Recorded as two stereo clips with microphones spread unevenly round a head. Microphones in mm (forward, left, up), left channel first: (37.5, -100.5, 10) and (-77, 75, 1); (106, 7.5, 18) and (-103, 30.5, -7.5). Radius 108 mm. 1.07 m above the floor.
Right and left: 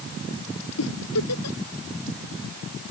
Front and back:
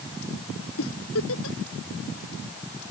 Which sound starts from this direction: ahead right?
A giggle, at 0.8 s.